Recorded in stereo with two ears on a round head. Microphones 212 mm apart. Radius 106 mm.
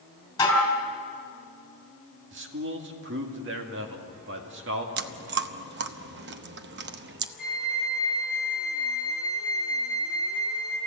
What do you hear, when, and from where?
0.4 s dishes clattering: 15° left (ahead or behind), 4.5 m
2.3 s a man speaking: 50° right (ahead or behind), 2 m
5.0 s chewing: 45° right (ahead or behind), 0.8 m
7.4 s a flute: centre (ahead or behind), 3.5 m